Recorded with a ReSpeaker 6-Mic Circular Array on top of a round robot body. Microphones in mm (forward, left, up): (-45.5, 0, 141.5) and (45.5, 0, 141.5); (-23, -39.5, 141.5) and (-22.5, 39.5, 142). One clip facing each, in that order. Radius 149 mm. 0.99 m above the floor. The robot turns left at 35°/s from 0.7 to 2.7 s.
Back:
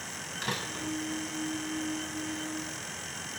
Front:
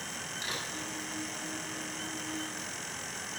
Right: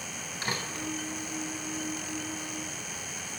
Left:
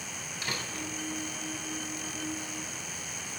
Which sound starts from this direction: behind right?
A door slam, at 0.4 s.